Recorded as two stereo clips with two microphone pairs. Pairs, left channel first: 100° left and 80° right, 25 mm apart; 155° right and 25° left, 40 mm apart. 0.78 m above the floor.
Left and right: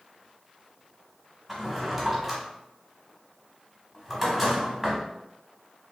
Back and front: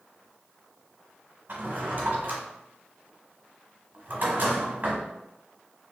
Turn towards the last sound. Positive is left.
turn(degrees=-5)